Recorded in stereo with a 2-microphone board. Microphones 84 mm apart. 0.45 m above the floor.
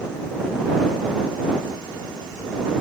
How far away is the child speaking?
I don't hear a child speaking.